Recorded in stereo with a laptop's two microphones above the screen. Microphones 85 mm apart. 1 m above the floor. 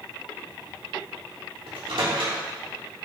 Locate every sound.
1.7 s a microwave: 80° right, 2.5 m